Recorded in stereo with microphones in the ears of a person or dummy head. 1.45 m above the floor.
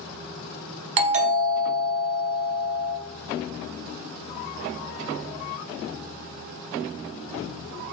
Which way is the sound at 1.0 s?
40° right (ahead or behind).